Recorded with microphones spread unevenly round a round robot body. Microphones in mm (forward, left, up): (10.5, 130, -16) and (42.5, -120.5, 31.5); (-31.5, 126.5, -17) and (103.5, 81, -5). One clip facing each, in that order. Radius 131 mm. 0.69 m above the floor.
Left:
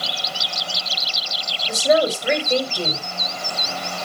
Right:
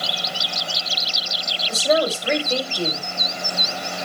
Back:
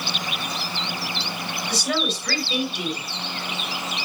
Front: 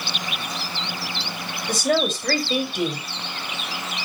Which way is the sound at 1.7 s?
25° left.